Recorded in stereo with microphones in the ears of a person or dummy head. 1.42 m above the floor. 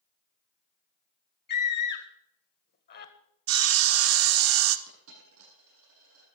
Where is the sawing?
70° right (ahead or behind), 0.9 m.